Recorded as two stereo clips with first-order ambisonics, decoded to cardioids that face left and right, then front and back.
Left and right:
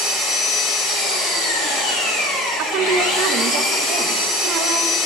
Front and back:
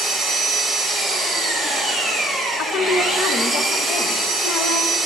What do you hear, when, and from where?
0.0 s an engine running: 90° left, 2 m
2.6 s a woman speaking: 50° right, 0.5 m